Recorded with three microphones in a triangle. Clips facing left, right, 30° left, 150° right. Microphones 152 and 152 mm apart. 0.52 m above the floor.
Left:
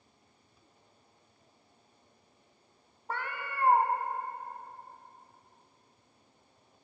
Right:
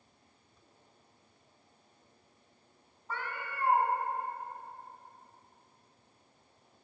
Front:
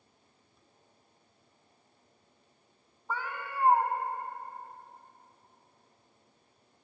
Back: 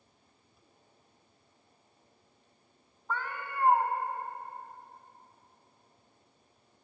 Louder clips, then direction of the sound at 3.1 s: Left 2 dB, even; 110° left.